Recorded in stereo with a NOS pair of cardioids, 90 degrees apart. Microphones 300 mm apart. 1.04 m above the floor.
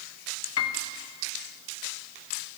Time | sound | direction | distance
0.6 | a piano | 55° left | 0.9 m